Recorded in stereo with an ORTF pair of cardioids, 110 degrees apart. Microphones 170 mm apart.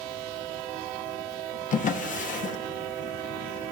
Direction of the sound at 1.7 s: 50° left.